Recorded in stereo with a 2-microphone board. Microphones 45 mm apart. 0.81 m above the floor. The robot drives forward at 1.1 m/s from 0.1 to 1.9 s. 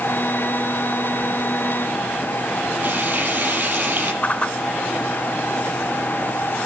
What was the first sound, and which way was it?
Frying, 40° right (ahead or behind).